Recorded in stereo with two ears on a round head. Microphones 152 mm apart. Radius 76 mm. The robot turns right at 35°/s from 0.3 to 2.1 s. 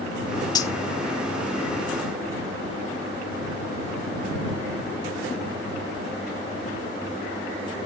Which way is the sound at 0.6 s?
25° left (ahead or behind).